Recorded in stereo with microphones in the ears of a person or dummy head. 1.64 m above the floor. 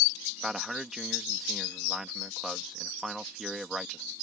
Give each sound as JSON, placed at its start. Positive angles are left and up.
{"t": 0.4, "sound": "a man speaking", "side_deg": 0}